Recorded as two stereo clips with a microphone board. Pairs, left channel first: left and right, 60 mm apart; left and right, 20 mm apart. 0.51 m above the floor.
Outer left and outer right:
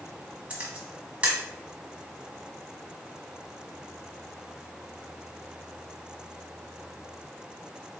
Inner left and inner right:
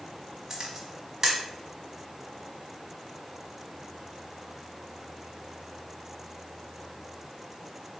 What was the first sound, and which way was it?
A camera shutter, 20° right (ahead or behind).